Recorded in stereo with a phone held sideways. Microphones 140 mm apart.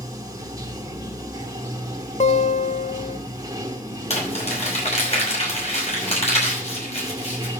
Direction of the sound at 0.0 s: 25° right (ahead or behind).